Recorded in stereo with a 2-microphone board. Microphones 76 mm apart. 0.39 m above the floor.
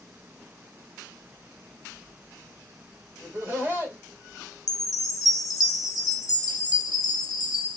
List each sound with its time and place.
3.2 s laughter: 30° right (ahead or behind), 1.5 m
4.7 s a chime: 55° left (ahead or behind), 0.6 m